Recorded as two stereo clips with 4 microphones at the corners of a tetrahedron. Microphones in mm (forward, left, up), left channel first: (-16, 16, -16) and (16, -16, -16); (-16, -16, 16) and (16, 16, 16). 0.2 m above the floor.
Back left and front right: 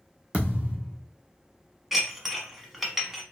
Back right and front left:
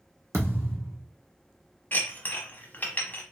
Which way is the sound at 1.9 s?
125° right.